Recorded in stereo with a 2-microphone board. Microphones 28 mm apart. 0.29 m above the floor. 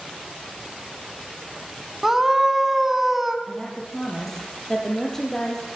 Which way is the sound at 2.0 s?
15° right (ahead or behind).